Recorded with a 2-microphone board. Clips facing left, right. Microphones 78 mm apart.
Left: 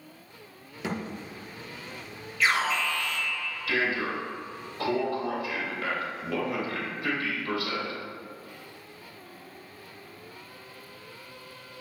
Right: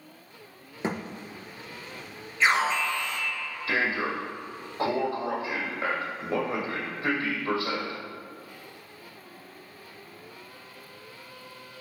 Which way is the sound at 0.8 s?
35° right (ahead or behind).